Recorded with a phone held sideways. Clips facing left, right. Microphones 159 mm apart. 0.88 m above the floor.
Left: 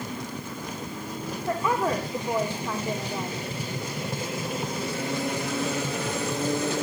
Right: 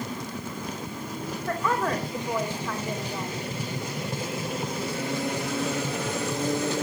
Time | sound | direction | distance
1.5 | a woman speaking | 15° left (ahead or behind) | 2.5 m